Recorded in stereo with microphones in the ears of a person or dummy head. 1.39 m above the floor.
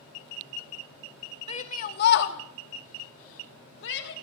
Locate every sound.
1.5 s a shout: 30° left (ahead or behind), 2 m; by 4.1 s 65° left (ahead or behind), 3.5 m